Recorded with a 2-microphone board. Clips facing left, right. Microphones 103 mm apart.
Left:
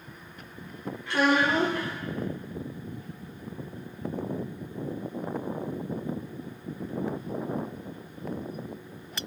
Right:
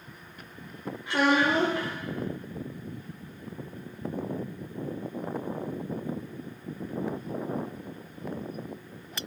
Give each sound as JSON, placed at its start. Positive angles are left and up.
{"t": 1.1, "sound": "a child speaking", "side_deg": -20, "distance_m": 1.0}